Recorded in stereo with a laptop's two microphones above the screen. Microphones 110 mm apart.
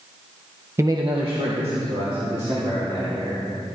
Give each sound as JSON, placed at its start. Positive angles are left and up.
{"t": 0.8, "sound": "a man speaking", "side_deg": -25, "distance_m": 0.7}